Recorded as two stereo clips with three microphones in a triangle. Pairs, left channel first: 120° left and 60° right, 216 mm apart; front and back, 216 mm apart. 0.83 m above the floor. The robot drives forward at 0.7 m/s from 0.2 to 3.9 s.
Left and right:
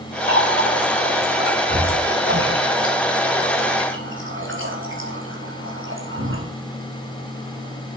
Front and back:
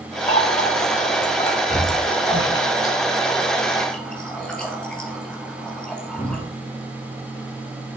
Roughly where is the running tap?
Ahead right.